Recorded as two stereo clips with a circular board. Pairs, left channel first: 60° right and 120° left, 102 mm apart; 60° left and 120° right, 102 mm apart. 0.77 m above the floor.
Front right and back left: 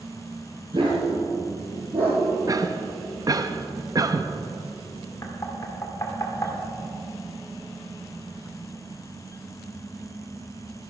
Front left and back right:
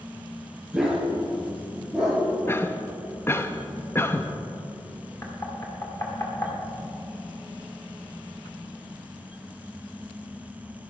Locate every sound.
0.7 s a dog barking: 155° left, 3.5 m; by 2.2 s 145° left, 4.5 m
2.5 s a cough: 110° left, 0.6 m
5.2 s knocking: straight ahead, 1.9 m